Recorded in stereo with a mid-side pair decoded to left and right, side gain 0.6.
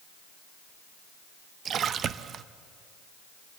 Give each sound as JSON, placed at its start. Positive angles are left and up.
{"t": 1.6, "sound": "a splash", "azimuth_deg": -45, "distance_m": 0.6}